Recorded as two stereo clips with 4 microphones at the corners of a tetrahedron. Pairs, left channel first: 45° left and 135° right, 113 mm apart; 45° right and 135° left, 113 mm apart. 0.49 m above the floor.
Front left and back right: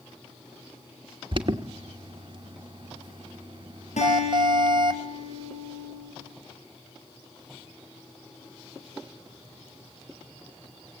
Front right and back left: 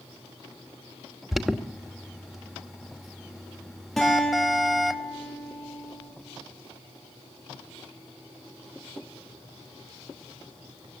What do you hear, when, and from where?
1.3 s an alarm: 140° right, 1.2 m
4.0 s a guitar: 40° left, 9 m